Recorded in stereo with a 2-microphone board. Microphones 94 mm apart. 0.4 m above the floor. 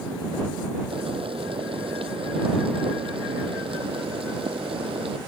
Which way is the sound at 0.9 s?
75° right (ahead or behind).